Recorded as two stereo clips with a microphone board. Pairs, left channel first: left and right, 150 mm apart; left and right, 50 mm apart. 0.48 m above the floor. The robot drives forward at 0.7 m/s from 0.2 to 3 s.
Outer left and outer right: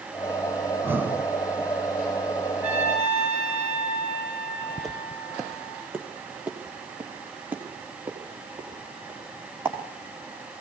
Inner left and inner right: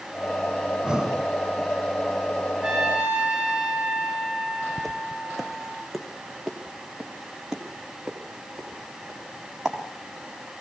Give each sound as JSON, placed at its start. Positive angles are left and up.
{"t": 0.7, "sound": "breathing", "side_deg": -20, "distance_m": 0.8}
{"t": 2.6, "sound": "a trumpet", "side_deg": -10, "distance_m": 8.5}
{"t": 4.8, "sound": "footsteps", "side_deg": 0, "distance_m": 1.2}